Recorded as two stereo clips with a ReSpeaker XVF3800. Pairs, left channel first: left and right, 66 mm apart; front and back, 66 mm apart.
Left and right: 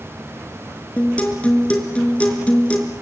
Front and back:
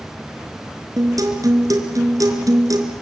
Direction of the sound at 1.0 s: 160° left.